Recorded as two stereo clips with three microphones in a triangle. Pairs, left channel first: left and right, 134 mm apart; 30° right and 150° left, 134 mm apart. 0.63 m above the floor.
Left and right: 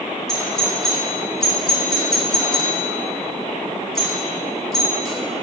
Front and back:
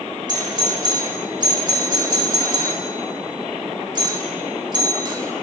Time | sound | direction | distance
0.3 | a doorbell | 175° left | 1.8 m